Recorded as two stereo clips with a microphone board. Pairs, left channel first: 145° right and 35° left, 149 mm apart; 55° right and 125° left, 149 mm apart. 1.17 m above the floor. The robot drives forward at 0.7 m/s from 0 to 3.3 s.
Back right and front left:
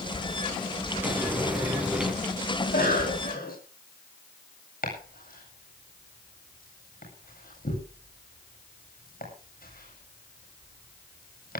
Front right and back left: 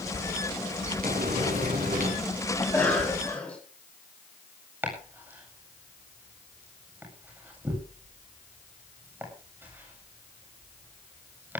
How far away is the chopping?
About 8.5 m.